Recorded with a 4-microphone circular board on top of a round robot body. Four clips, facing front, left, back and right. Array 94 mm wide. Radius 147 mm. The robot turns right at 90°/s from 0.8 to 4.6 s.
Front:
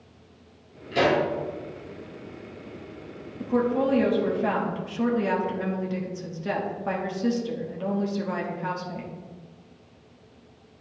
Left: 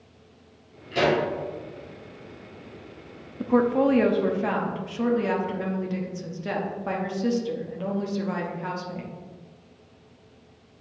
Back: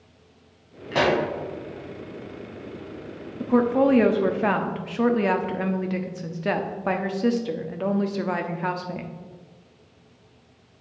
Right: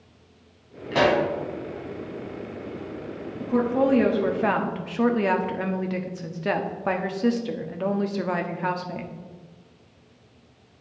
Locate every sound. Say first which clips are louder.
0.9 s a pop: right 2 dB, even; 145° right, 2.5 m; by 1.2 s 115° right, 2.5 m
3.4 s a woman speaking: left 1 dB, back 4 dB; 115° left, 1.1 m; by 9.1 s 135° right, 1.1 m